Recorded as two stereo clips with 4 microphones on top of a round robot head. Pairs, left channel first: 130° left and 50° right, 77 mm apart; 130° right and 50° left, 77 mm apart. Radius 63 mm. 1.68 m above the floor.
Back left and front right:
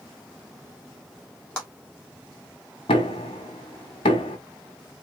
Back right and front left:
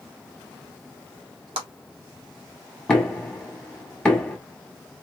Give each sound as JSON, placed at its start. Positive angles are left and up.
{"t": 1.6, "sound": "a clap", "azimuth_deg": 50, "distance_m": 1.8}
{"t": 2.9, "sound": "knocking", "azimuth_deg": 150, "distance_m": 1.6}